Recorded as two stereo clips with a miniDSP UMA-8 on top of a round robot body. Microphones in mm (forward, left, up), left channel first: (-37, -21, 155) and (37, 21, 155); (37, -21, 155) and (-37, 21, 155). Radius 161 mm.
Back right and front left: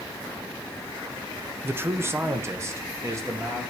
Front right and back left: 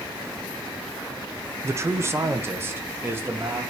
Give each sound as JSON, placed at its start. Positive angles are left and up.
{"t": 1.6, "sound": "a man speaking", "azimuth_deg": 95, "distance_m": 0.7}